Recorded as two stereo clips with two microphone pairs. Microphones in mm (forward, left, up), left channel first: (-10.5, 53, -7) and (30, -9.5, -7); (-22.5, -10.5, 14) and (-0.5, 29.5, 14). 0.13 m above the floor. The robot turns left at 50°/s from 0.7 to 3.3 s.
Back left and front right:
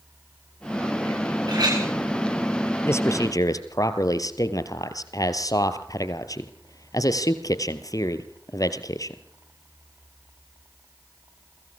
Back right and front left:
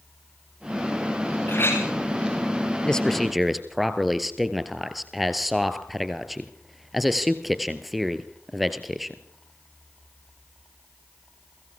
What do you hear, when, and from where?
1.5 s a clink: 80° right, 9.5 m; by 1.9 s 100° right, 9.5 m
2.9 s a man speaking: 170° left, 2.5 m; by 9.2 s 150° left, 2.5 m